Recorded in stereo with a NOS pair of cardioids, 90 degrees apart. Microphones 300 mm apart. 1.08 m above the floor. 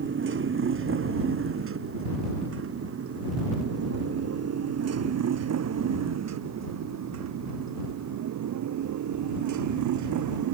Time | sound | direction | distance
0.0 | a motorcycle | 40° right | ?